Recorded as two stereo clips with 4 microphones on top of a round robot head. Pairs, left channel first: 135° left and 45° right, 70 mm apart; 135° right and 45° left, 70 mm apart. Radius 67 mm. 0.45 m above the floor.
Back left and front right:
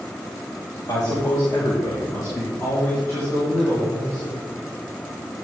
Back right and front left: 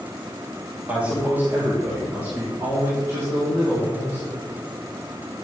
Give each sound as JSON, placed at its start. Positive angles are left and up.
{"t": 0.9, "sound": "a man speaking", "azimuth_deg": 110, "distance_m": 1.9}